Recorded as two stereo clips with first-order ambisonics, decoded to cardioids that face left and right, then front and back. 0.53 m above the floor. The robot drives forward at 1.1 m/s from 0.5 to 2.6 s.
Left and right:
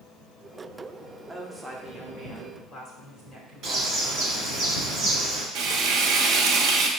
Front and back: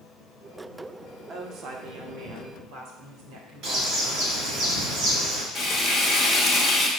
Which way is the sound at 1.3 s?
160° right.